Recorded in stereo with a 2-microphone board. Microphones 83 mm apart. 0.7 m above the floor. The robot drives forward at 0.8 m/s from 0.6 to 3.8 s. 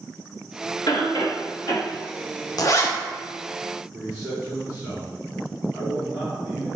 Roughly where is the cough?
Left.